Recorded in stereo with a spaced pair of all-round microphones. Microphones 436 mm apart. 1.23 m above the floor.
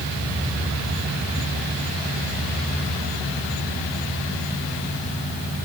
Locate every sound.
Only background noise.